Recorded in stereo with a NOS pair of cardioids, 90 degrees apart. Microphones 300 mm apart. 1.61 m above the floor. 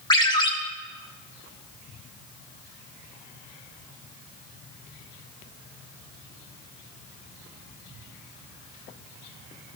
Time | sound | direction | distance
0.1 | a ringtone | 15° left | 2.0 m